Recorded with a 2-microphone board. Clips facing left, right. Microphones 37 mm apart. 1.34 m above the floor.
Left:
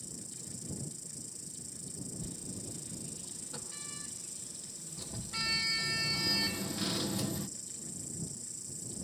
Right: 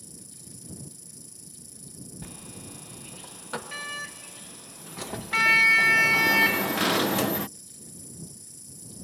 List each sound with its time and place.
0.0 s an insect: 5° right (ahead or behind)
2.2 s a sliding door: 85° right